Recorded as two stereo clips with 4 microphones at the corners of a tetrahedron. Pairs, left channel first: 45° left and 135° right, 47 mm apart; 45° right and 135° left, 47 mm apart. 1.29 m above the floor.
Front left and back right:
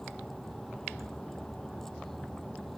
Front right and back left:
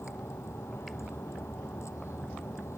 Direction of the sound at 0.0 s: 35° right.